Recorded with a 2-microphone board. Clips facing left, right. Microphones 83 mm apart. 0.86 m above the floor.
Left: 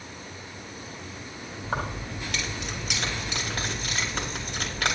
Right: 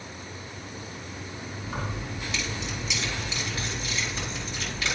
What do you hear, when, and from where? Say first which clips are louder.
1.6 s keys jangling: left 4 dB; 65° left (ahead or behind), 3 m